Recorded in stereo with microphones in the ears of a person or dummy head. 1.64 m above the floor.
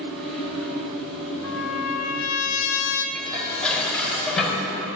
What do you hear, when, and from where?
0.0 s a fan: 5° left (ahead or behind), 3 m
1.4 s a trumpet: 80° left, 1.4 m
3.1 s dishes clattering: 5° left (ahead or behind), 5 m